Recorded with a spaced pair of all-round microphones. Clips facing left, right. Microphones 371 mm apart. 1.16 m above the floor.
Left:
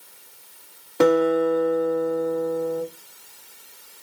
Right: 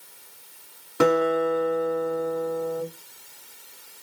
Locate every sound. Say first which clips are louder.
1.0 s a guitar: left 3 dB; 15° right (ahead or behind), 1.8 m